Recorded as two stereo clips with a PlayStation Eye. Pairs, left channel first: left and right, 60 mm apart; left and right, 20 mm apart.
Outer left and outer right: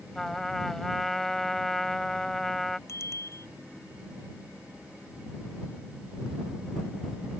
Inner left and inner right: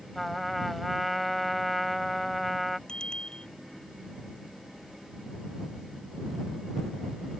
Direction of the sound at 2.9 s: 50° left (ahead or behind).